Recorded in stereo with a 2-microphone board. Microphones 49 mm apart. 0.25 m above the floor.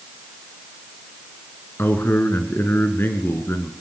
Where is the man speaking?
45° left (ahead or behind), 2.5 m.